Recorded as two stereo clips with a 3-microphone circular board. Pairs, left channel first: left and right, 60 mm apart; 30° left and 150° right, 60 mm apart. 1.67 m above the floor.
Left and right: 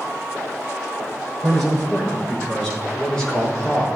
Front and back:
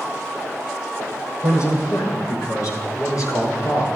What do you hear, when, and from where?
1.4 s a man speaking: straight ahead, 5.5 m; by 3.9 s 15° left, 4.5 m